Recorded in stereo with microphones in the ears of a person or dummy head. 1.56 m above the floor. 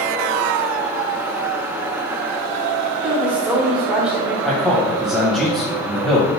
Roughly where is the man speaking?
Centre.